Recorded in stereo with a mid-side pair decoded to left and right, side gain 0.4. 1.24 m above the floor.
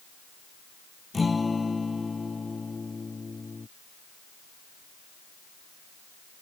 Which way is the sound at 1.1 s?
25° left.